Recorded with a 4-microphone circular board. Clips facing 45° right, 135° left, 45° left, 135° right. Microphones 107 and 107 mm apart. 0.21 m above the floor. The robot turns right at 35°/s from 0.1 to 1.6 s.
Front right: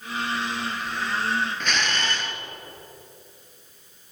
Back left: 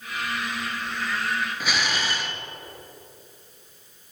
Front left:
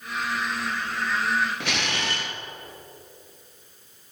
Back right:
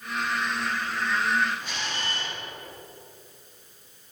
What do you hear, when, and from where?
1.6 s a camera shutter: 55° left, 0.9 m